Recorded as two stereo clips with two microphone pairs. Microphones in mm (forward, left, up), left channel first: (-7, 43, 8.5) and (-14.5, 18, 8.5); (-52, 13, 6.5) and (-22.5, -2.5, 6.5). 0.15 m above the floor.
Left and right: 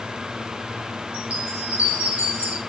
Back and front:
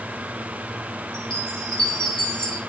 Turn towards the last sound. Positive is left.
turn(degrees=-135)